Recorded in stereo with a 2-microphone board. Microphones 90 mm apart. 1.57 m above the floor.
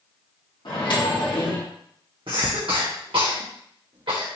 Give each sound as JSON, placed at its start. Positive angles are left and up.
{"t": 0.7, "sound": "a microwave", "side_deg": 65, "distance_m": 1.6}
{"t": 2.3, "sound": "a cough", "side_deg": -75, "distance_m": 0.9}